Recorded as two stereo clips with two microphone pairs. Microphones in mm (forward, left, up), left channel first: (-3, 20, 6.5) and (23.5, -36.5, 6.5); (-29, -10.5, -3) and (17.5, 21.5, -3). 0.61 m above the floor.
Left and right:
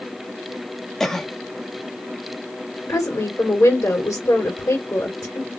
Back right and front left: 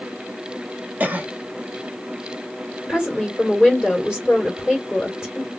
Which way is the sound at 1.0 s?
35° left.